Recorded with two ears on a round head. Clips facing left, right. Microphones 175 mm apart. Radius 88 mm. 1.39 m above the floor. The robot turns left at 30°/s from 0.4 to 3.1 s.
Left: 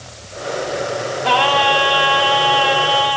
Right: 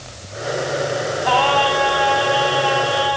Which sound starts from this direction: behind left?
Singing, at 1.2 s.